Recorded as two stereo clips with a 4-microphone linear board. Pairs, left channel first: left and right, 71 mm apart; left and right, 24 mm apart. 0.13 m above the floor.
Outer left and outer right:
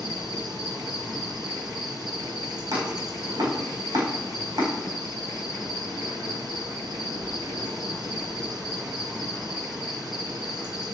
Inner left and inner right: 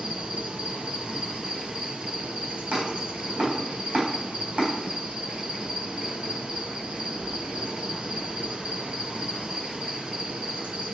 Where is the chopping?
75° right (ahead or behind), 5.5 m.